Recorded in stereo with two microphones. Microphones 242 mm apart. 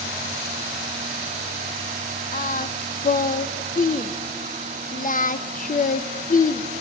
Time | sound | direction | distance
2.3 | singing | 35° left (ahead or behind) | 0.5 m